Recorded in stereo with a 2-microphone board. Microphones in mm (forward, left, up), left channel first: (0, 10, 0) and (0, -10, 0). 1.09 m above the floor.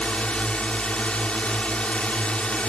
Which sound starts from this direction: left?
A drone, at 0.0 s.